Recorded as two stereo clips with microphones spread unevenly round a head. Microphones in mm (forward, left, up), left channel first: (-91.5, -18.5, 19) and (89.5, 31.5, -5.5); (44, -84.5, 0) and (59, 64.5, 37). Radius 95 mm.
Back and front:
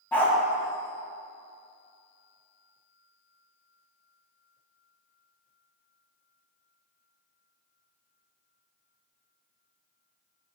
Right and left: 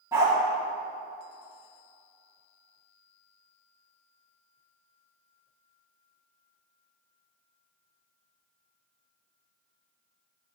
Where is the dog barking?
125° left, 1.5 m.